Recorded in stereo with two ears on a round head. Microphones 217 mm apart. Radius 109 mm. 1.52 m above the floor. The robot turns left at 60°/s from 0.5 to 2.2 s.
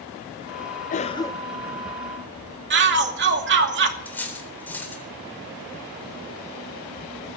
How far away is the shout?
About 2.5 m.